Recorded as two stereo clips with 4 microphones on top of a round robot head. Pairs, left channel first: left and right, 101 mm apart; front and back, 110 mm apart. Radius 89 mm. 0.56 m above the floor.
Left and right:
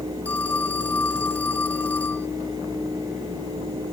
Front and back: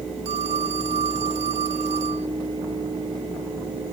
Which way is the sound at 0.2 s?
165° left.